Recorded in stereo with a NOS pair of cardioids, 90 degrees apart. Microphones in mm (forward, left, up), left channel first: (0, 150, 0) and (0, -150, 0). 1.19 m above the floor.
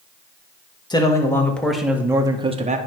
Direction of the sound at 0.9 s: 15° left.